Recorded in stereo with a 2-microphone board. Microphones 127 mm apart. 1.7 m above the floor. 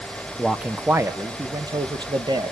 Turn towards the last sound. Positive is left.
turn(degrees=-40)  # may be behind; listen again after turning